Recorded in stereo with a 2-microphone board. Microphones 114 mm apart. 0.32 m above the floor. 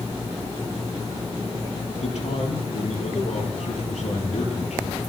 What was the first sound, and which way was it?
A man speaking, 80° left.